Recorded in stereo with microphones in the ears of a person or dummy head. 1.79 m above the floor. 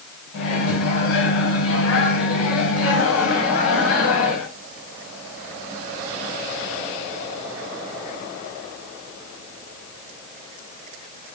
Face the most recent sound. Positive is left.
turn(degrees=65)  # may be behind; listen again after turning